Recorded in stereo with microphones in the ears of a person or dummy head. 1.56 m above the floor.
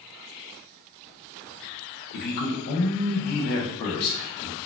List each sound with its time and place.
2.1 s a man speaking: 55° left (ahead or behind), 0.7 m